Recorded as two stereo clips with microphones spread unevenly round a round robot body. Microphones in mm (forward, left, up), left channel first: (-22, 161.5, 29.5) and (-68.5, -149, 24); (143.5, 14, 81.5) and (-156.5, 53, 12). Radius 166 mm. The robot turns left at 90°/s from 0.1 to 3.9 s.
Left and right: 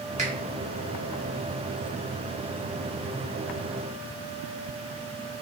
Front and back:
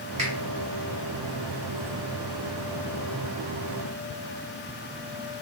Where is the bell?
I don't hear a bell.